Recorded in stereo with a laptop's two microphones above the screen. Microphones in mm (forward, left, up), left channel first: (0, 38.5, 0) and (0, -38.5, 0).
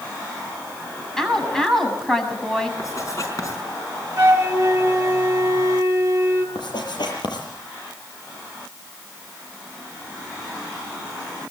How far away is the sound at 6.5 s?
About 7 m.